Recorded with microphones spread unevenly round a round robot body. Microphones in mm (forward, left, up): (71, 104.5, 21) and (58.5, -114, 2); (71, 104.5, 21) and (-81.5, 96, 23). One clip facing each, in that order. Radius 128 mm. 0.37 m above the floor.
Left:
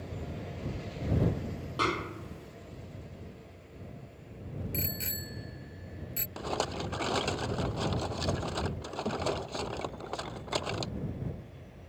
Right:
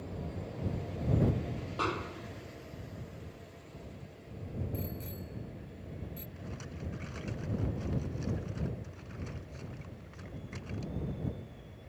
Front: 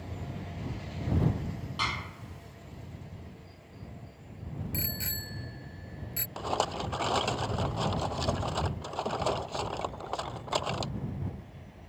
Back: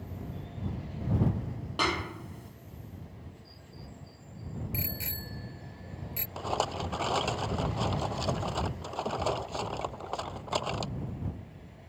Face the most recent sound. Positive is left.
turn(degrees=95)